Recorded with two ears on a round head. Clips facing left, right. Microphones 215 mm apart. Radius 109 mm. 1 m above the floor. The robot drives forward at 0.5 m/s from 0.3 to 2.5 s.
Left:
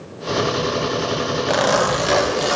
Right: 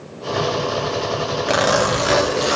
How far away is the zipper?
About 1.2 m.